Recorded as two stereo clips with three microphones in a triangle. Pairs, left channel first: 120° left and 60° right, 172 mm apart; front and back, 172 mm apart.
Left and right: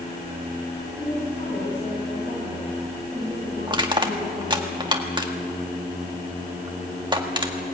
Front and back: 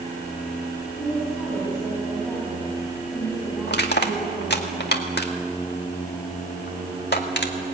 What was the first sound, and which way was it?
A woman speaking, 80° left.